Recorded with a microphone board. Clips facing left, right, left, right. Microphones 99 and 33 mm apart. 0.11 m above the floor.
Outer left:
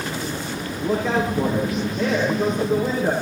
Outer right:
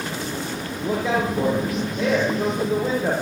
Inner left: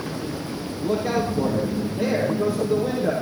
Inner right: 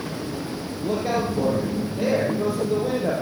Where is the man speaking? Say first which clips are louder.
Outer left 1 dB, inner left 1 dB; 5° right (ahead or behind), 3.5 m.